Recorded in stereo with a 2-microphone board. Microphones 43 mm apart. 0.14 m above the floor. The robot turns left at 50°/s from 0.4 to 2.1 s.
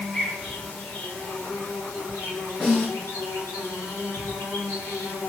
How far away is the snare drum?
About 1.6 m.